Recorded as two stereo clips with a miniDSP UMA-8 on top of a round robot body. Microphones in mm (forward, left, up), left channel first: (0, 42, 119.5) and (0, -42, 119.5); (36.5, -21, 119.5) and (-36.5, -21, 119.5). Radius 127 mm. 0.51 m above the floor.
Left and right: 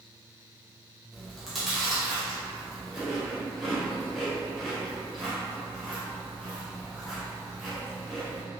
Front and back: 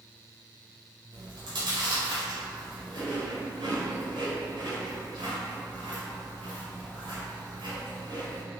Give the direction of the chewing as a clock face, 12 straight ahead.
6 o'clock.